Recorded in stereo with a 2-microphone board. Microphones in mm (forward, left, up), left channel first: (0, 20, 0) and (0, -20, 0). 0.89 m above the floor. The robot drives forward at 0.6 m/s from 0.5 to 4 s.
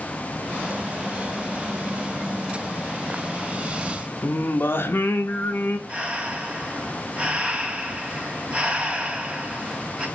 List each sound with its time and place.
4.2 s singing: 65° left (ahead or behind), 0.5 m
5.9 s breathing: 30° right (ahead or behind), 0.9 m